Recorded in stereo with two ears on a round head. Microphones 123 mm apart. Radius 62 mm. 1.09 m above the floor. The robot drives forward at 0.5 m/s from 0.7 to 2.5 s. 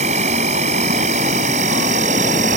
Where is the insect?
50° right (ahead or behind); by 2.6 s 60° right (ahead or behind).